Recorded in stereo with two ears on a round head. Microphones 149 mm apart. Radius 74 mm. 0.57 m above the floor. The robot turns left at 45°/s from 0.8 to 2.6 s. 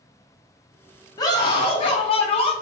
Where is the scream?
135° left, 0.7 m; by 2.5 s 75° left, 0.7 m.